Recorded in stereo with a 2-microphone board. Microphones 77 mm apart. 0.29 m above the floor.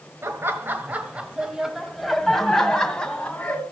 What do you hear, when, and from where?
0.2 s laughter: 35° right (ahead or behind), 1.2 m; by 3.6 s 15° left (ahead or behind), 2 m